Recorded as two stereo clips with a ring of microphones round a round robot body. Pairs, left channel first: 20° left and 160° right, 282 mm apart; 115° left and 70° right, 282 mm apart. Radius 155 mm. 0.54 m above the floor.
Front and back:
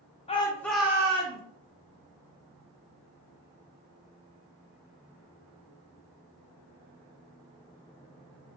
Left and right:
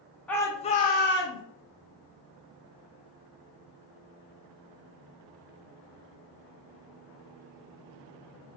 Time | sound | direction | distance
0.3 | a shout | 35° left | 0.6 m